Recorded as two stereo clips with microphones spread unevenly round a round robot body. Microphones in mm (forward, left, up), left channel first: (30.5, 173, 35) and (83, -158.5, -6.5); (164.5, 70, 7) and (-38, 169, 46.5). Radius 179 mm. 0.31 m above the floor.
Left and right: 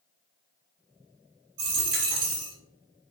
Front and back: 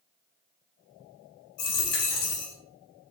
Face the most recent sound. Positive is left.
turn(degrees=-30)